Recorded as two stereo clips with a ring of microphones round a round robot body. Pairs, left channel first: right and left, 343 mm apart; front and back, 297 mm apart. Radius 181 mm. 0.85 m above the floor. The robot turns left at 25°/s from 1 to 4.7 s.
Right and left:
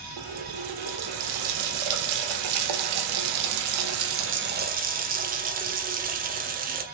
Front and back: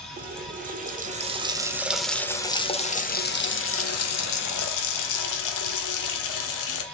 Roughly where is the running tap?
Behind left.